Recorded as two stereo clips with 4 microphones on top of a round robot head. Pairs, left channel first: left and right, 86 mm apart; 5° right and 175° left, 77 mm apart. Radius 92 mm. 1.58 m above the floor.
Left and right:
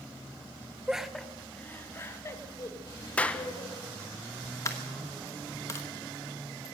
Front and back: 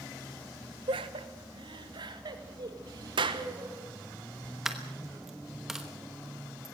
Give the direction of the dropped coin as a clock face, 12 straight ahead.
9 o'clock.